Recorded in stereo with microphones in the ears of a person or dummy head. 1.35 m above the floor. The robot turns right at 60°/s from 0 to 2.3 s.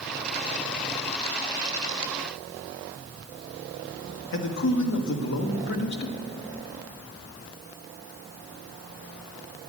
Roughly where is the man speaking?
Left.